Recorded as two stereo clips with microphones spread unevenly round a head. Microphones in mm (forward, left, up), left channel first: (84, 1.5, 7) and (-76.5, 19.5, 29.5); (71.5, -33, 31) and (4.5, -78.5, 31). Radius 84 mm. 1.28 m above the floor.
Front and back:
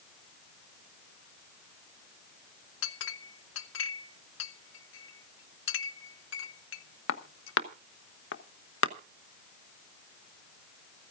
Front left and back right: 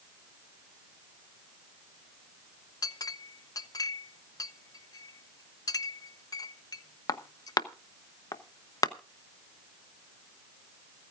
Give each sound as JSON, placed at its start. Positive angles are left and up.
{"t": 2.8, "sound": "a clink", "azimuth_deg": -5, "distance_m": 1.0}